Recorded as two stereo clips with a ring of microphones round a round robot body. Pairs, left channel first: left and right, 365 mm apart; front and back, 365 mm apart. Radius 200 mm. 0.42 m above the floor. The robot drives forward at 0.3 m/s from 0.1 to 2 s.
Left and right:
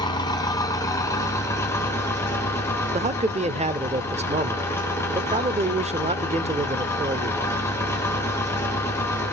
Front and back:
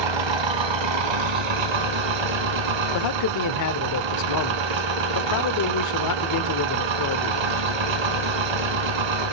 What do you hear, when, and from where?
0.0 s an engine running: 170° left, 0.9 m; by 9.3 s 175° left, 1.5 m
2.9 s a man speaking: 20° right, 1.1 m